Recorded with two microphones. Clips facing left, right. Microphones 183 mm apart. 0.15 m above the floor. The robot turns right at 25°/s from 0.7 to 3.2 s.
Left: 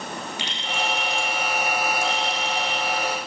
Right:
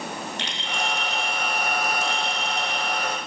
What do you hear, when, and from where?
0.4 s a clink: 10° left (ahead or behind), 6 m; by 2.8 s 45° right (ahead or behind), 6 m